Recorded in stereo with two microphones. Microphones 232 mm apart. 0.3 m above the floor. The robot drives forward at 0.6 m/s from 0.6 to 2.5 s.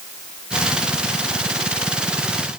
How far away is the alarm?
No alarm in this recording.